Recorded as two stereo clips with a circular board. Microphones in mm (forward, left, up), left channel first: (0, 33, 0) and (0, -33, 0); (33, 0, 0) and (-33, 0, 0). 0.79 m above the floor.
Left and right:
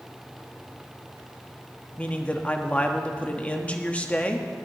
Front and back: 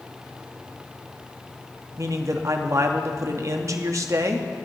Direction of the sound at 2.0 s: 155° left.